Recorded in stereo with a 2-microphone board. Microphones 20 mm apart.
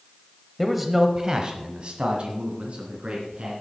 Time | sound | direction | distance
0.6 | a man speaking | 5° left (ahead or behind) | 1.0 m